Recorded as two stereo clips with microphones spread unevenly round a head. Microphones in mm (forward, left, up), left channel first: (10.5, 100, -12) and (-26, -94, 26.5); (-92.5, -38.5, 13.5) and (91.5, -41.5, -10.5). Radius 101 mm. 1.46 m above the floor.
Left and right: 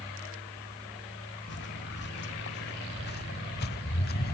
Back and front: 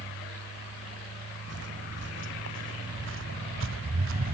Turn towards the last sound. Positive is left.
turn(degrees=30)